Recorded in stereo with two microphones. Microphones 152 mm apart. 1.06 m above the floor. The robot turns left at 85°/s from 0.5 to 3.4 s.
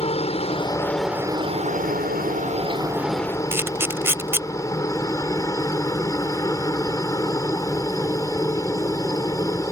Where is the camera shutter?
15° right (ahead or behind).